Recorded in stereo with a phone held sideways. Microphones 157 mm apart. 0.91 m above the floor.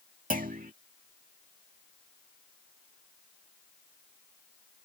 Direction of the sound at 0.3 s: 60° right (ahead or behind).